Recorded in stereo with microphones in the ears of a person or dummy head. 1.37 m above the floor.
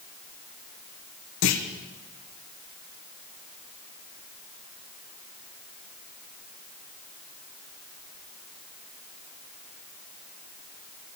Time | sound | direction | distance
1.4 | a clunk | 60° left (ahead or behind) | 1.1 m